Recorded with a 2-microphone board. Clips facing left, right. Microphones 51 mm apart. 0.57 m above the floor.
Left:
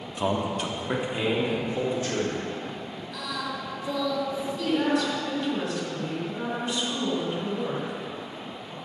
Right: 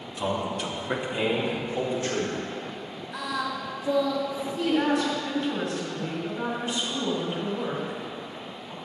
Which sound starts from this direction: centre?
A woman speaking, at 4.6 s.